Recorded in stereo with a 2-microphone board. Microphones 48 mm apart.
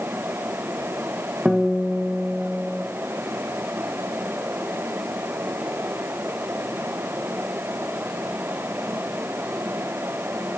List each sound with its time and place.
1.4 s a guitar: 10° right (ahead or behind), 1.2 m